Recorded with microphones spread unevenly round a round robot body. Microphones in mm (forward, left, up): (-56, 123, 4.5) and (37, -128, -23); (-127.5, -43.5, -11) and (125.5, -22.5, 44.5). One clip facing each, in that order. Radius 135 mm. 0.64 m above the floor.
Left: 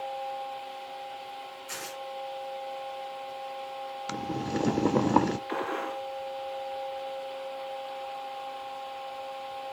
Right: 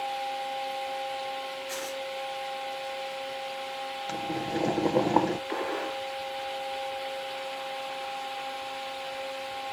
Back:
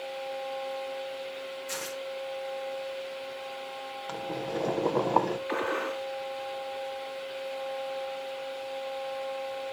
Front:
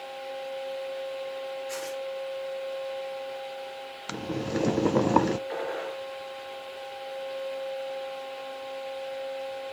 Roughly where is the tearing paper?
Behind left.